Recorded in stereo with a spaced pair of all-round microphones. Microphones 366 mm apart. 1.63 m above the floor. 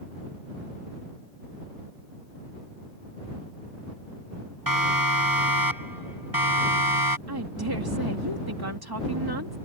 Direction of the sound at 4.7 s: 65° right (ahead or behind).